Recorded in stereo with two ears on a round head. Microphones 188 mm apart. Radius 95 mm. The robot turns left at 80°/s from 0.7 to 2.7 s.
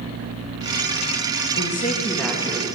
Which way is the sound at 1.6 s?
55° left.